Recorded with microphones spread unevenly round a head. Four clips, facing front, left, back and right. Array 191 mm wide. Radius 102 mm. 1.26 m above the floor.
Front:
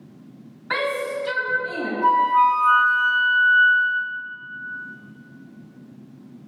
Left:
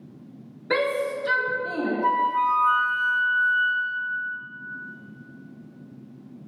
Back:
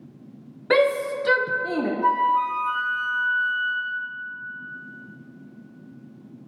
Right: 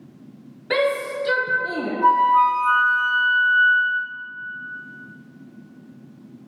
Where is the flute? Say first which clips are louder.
Right 8 dB, front 6 dB; 60° right, 1.4 m.